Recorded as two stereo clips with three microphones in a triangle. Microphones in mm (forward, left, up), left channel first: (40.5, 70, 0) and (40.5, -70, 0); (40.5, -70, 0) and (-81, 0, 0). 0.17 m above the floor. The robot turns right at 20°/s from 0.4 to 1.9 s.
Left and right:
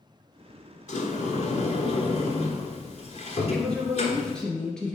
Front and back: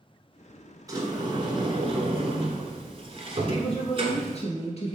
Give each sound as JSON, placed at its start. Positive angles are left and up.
{"t": 0.9, "sound": "a sliding door", "azimuth_deg": 90, "distance_m": 1.1}
{"t": 3.5, "sound": "a woman speaking", "azimuth_deg": 5, "distance_m": 2.5}